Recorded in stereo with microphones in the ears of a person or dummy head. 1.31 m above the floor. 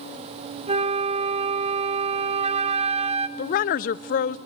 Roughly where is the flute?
Right.